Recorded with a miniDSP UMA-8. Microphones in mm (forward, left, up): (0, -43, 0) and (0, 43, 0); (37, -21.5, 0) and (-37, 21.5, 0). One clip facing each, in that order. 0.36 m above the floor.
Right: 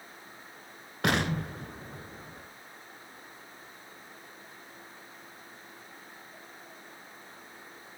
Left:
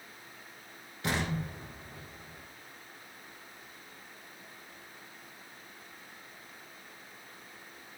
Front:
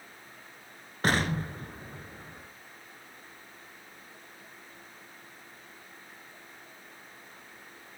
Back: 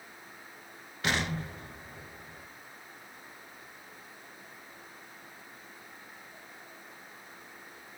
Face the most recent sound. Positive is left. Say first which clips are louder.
# right 5 dB, front 4 dB
turn(degrees=-75)